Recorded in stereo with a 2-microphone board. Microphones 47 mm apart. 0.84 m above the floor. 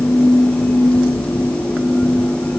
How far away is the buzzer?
I don't hear a buzzer.